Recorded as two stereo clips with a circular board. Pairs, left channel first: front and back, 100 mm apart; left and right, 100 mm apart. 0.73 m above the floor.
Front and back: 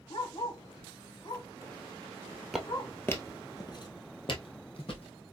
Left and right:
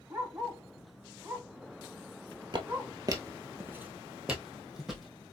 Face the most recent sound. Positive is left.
turn(degrees=0)